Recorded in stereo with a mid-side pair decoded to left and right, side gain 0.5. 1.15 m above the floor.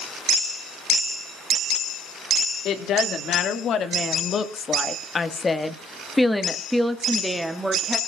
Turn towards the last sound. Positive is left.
turn(degrees=-20)